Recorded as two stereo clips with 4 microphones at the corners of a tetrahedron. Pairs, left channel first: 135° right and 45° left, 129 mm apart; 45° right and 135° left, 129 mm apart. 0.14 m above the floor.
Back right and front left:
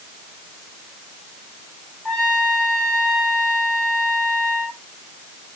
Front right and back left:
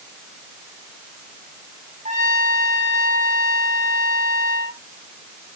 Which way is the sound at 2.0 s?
135° left.